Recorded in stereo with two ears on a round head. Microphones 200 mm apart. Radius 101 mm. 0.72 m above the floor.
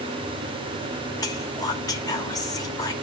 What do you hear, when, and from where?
1.2 s whispering: 15° left (ahead or behind), 1.3 m